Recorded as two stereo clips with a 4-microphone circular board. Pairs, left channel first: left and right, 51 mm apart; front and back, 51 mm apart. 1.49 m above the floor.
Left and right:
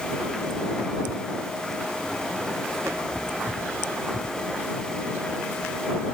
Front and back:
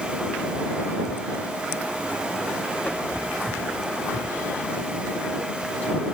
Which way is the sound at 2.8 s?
55° right.